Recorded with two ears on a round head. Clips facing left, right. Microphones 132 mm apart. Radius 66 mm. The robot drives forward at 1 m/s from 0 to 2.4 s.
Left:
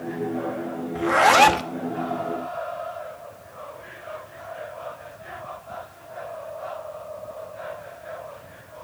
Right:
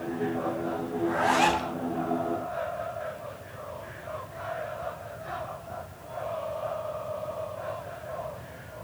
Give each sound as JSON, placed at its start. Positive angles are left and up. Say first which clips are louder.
{"t": 0.9, "sound": "a zipper", "louder": "left 8 dB", "side_deg": 80, "distance_m": 1.0}